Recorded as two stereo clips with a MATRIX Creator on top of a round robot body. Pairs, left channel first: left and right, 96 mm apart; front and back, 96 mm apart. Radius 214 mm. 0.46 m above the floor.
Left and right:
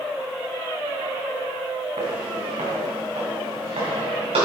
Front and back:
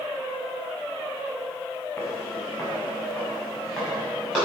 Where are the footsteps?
75° right, 2.5 m; by 4.5 s 90° right, 5.5 m.